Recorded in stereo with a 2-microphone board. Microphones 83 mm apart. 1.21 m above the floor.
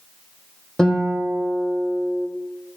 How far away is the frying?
No frying in this recording.